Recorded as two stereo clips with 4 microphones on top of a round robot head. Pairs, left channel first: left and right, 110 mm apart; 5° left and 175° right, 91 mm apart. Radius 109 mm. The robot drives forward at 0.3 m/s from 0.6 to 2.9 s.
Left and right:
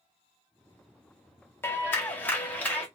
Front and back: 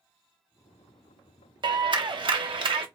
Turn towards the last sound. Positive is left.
turn(degrees=165)